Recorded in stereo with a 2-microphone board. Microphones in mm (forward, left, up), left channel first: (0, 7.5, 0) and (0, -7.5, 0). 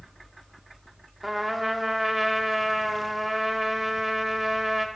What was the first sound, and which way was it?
A trumpet, 10° right (ahead or behind).